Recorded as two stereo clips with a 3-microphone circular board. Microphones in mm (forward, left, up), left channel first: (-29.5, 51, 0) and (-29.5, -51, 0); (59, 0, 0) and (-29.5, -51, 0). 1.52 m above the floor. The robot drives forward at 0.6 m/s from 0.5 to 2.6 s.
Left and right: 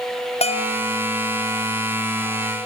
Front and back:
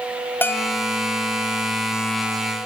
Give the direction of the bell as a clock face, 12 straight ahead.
9 o'clock.